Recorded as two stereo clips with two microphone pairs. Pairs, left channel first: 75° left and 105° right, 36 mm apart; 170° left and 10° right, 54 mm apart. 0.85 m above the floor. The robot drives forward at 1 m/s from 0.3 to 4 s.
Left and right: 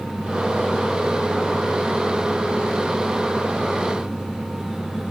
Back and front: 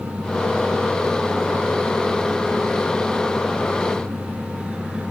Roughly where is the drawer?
No drawer in this recording.